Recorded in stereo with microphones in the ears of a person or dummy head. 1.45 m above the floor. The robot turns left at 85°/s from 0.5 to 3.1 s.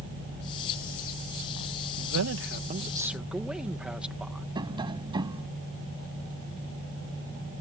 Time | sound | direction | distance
2.0 | a man speaking | 80° right | ?
4.5 | tapping | 20° right (ahead or behind) | ?